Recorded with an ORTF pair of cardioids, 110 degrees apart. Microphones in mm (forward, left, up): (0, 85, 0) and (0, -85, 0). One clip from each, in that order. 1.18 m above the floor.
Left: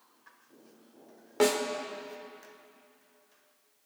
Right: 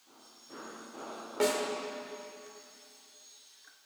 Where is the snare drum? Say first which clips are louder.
Left 3 dB; 20° left, 1.7 m.